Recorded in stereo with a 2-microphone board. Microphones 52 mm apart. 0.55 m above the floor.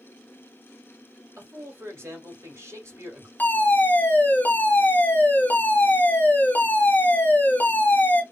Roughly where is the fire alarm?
Left.